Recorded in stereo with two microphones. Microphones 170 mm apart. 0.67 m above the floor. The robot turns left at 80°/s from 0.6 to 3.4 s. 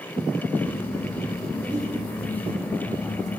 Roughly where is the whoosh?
Right.